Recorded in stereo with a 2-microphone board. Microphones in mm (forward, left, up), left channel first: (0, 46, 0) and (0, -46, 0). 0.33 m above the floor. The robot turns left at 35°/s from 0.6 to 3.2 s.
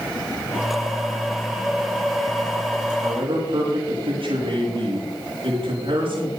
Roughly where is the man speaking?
Right.